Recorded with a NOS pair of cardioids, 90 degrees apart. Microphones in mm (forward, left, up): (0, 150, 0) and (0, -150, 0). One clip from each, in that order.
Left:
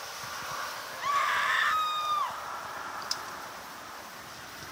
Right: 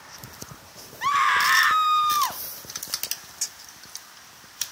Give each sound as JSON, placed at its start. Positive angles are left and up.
{"t": 1.0, "sound": "a scream", "azimuth_deg": -40, "distance_m": 1.1}